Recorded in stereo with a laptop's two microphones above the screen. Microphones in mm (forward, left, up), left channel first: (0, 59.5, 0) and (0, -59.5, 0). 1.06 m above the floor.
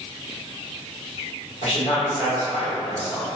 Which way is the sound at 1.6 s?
65° left (ahead or behind).